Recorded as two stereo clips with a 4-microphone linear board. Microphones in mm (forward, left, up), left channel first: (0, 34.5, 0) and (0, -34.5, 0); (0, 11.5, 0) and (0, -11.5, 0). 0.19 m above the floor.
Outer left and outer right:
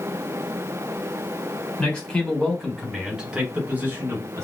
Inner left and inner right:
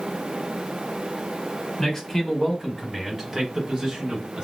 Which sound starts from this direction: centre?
A man speaking, at 1.8 s.